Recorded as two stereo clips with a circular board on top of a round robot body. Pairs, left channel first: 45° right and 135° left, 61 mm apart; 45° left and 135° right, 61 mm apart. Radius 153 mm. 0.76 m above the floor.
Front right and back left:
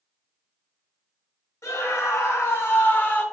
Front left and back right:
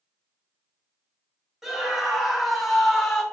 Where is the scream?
55° right, 1.9 m; by 3.2 s 25° right, 1.2 m.